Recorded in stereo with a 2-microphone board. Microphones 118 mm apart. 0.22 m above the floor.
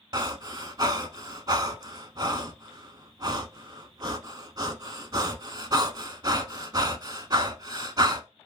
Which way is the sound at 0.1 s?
35° right (ahead or behind).